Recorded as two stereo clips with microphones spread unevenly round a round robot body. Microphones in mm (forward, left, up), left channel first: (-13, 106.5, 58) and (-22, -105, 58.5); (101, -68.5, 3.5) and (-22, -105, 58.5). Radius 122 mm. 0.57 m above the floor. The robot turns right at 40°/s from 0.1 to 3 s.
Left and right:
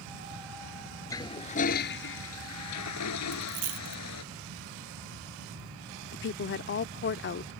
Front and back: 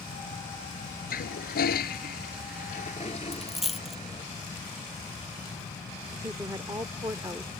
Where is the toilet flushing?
10° left; by 4.2 s 90° left.